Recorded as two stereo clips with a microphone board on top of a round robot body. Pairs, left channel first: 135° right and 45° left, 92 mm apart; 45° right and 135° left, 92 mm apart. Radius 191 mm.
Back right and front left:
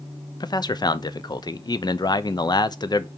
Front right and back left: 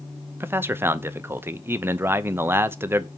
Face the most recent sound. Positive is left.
turn(degrees=-165)